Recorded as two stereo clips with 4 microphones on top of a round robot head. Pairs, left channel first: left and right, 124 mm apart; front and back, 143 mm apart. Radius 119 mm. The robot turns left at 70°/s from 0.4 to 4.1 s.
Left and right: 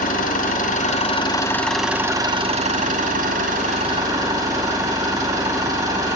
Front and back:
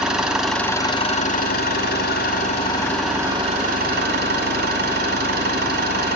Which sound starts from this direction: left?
An engine running, at 0.0 s.